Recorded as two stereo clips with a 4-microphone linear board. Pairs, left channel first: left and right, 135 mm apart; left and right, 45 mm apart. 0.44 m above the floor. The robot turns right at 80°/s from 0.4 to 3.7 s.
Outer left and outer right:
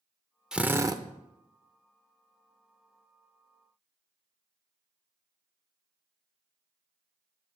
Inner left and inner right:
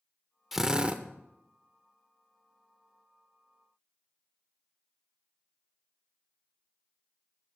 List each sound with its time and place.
0.5 s a drill: 175° right, 0.5 m; by 1.0 s 130° right, 0.5 m